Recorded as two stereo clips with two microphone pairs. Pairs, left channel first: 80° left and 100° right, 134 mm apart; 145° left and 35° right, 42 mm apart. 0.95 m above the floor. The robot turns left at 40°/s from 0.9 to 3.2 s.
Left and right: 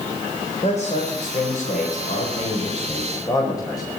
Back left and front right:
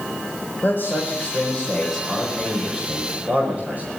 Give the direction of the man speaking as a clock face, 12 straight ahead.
8 o'clock.